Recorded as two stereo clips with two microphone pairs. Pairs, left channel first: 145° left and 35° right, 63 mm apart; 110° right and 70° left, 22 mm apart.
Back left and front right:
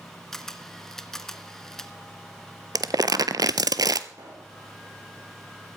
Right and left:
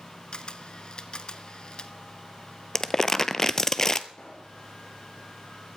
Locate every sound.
0.3 s a camera shutter: 135° right, 0.8 m
2.8 s crumpling: 45° right, 0.5 m
4.1 s a pop: 65° right, 4 m